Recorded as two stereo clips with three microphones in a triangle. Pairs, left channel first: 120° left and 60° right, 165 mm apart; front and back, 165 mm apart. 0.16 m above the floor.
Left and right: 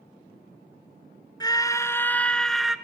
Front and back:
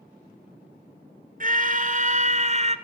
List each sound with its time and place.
1.4 s a scream: straight behind, 1.7 m; by 2.8 s 145° right, 1.6 m